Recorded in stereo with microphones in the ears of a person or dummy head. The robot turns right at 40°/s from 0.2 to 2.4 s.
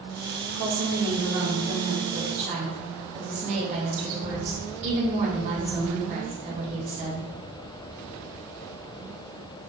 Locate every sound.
0.6 s a woman speaking: 115° right, 1.4 m; by 7.2 s 40° right, 1.4 m